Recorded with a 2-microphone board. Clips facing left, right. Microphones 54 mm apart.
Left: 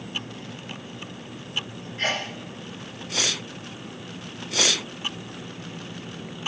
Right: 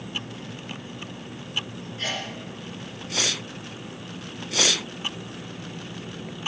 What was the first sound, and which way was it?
A sneeze, 45° left (ahead or behind).